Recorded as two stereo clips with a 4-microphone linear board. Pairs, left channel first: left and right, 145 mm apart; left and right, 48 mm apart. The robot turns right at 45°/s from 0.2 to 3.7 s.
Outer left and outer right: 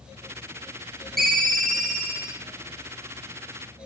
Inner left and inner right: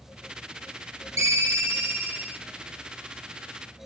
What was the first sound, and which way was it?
A ringtone, 85° right.